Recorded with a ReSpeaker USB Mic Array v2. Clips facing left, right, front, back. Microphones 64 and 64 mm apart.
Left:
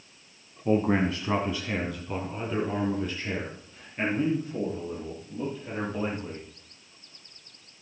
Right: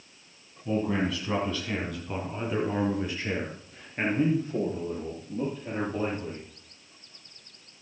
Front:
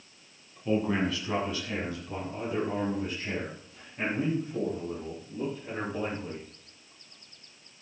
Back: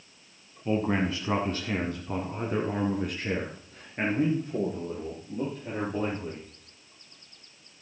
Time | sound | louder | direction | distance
0.7 | a man speaking | left 4 dB, back 1 dB | 110° left | 2 m